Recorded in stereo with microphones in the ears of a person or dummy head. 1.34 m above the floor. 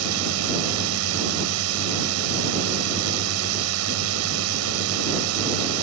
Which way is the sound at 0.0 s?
85° right.